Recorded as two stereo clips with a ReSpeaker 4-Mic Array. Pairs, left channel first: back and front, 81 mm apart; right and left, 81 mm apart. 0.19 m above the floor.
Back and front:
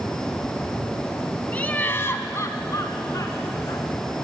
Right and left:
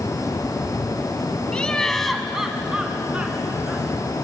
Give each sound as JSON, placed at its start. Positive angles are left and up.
{"t": 1.5, "sound": "laughter", "azimuth_deg": -145, "distance_m": 1.1}